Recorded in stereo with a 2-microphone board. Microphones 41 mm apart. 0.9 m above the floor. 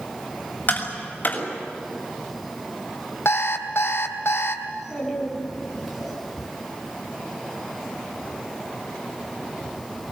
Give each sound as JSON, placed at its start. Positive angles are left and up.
{"t": 0.7, "sound": "tapping", "side_deg": 45, "distance_m": 6.0}
{"t": 3.2, "sound": "an alarm clock", "side_deg": 90, "distance_m": 3.0}
{"t": 4.7, "sound": "a child speaking", "side_deg": -5, "distance_m": 9.5}